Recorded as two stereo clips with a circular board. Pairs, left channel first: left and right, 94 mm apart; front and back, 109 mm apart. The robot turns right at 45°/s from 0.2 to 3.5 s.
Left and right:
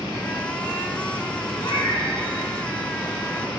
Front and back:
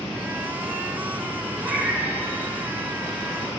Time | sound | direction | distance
1.6 | a cat meowing | 105° left | 2 m